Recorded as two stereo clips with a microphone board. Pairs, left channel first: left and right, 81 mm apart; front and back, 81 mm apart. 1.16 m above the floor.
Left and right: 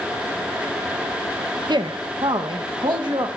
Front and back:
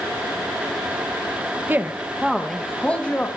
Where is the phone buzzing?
I don't hear a phone buzzing.